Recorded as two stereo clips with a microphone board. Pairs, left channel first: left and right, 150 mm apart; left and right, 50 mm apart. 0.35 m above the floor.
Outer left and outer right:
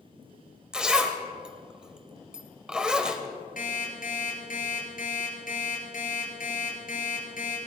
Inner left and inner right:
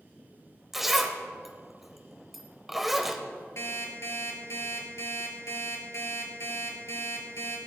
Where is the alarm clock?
65° left (ahead or behind), 4 m.